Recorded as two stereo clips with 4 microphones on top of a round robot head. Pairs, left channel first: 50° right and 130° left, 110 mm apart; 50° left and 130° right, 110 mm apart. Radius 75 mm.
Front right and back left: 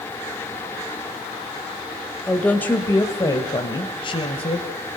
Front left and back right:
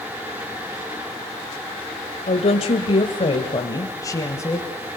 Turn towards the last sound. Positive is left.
turn(degrees=-20)